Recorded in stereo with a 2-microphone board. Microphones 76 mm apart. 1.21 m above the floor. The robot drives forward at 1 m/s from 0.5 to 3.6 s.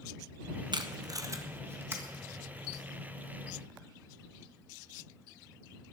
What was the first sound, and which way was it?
Tape being pulled, 70° right (ahead or behind).